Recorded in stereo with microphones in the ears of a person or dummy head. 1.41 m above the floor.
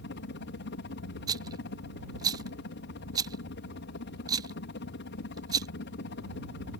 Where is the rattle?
25° right (ahead or behind).